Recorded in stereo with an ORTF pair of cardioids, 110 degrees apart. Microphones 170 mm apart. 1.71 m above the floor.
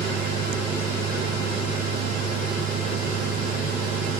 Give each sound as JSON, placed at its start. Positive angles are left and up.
{"t": 0.0, "sound": "a machine running", "azimuth_deg": -60}